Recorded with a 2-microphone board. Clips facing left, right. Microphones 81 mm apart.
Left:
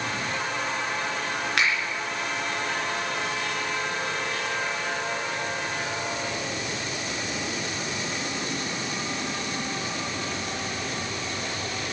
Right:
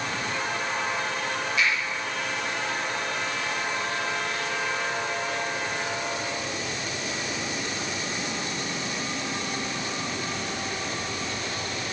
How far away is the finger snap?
About 4 m.